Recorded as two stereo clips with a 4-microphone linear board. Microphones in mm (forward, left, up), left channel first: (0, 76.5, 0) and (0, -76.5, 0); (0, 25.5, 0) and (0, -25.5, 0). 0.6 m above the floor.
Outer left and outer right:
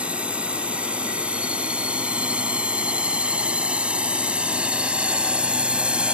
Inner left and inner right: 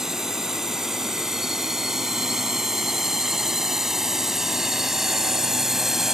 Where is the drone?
5° right (ahead or behind).